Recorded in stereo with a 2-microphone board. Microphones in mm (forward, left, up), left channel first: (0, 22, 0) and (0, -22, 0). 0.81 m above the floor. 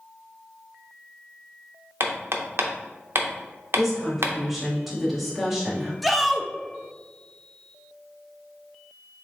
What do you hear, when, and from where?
2.0 s hammering: 65° right (ahead or behind), 0.6 m
3.8 s a woman speaking: centre (ahead or behind), 1.6 m
6.0 s a shout: centre (ahead or behind), 0.5 m